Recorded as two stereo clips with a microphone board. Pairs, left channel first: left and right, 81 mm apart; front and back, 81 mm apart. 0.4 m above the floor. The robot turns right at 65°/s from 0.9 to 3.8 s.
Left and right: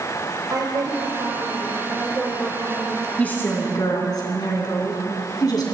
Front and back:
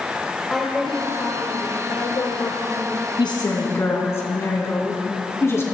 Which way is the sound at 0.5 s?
85° right.